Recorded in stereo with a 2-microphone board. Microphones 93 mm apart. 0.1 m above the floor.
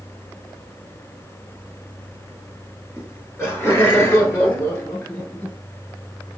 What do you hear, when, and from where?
3.0 s laughter: 25° left (ahead or behind), 1.4 m; by 5.6 s 20° left (ahead or behind), 1.5 m